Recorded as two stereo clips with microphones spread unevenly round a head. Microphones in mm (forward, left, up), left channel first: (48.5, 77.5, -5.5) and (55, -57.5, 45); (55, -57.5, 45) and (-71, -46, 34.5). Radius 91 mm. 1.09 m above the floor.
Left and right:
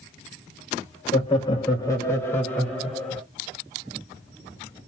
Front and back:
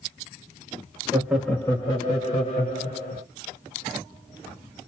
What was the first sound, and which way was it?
Laughter, 110° left.